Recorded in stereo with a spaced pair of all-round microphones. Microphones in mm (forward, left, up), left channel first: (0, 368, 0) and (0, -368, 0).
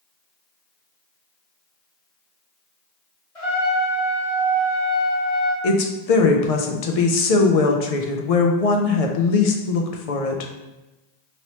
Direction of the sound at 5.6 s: 55° left (ahead or behind).